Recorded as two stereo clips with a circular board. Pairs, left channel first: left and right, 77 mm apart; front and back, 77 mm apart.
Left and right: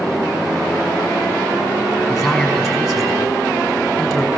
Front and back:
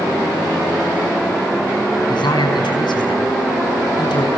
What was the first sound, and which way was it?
A man speaking, straight ahead.